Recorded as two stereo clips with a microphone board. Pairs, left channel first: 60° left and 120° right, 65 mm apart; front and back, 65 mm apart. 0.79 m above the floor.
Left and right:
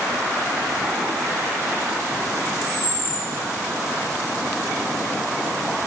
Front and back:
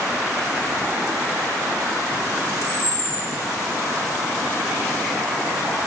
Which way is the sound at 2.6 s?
25° right.